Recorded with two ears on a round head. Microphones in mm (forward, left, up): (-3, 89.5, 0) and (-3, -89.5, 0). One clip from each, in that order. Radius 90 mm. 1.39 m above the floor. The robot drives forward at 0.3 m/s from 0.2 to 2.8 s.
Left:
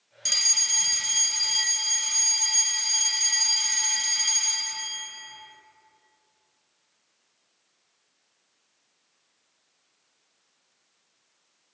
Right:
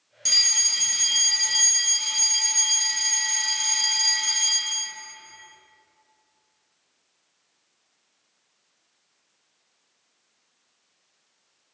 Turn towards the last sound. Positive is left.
turn(degrees=0)  # may be behind; listen again after turning